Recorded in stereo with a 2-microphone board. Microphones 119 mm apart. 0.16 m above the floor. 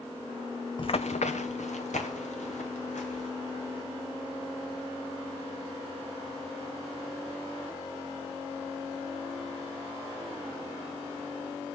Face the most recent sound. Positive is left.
turn(degrees=80)